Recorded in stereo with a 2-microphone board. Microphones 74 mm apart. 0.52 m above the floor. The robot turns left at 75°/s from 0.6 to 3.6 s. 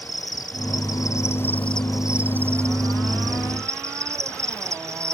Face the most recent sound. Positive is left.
turn(degrees=-125)